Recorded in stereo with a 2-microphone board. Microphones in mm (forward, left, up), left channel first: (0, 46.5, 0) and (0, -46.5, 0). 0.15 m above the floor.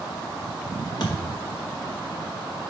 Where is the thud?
50° left (ahead or behind), 3 m.